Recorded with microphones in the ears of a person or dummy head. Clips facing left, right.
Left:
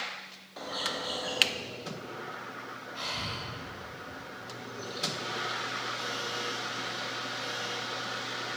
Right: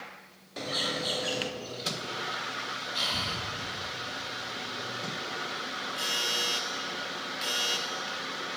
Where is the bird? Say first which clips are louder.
Right 3 dB; 30° right (ahead or behind), 0.7 m.